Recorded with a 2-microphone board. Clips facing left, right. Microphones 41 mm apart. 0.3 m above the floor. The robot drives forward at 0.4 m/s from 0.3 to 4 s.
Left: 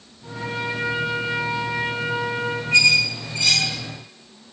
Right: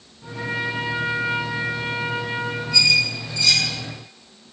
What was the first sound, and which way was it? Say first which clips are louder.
A trumpet: right 1 dB; 80° right.